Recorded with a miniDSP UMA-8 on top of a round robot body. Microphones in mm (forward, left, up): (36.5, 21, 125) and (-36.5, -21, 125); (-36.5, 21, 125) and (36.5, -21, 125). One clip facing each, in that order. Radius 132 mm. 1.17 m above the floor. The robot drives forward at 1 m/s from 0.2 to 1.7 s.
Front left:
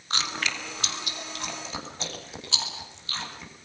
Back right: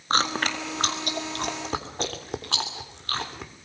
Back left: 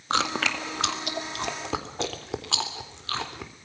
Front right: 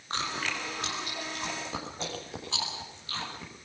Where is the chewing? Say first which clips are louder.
Back right 7 dB, back left 7 dB; 160° left, 2.0 m; by 3.5 s 170° left, 3.5 m.